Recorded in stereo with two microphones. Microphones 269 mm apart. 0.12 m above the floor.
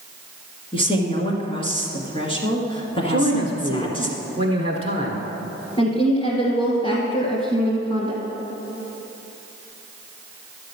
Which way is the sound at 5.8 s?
20° left (ahead or behind).